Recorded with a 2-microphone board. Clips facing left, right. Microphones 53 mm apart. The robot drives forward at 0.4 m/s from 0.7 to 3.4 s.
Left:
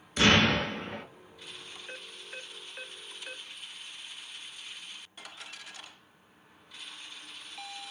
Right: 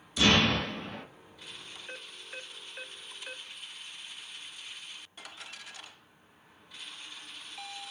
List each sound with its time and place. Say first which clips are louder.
0.2 s an explosion: left 2 dB; 55° left (ahead or behind), 0.9 m; by 1.0 s 50° left (ahead or behind), 1.0 m